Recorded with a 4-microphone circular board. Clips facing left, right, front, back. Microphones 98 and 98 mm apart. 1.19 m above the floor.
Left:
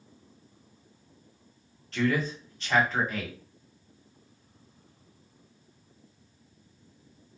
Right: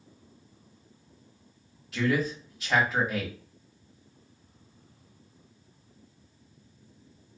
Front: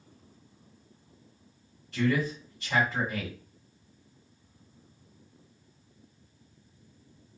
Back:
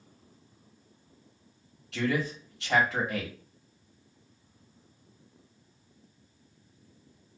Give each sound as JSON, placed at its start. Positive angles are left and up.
{"t": 1.9, "sound": "a man speaking", "azimuth_deg": -175, "distance_m": 1.2}